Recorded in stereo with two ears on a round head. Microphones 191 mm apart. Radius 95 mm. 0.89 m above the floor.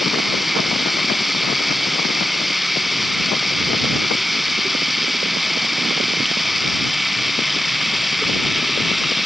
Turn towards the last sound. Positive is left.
turn(degrees=0)  # may be behind; listen again after turning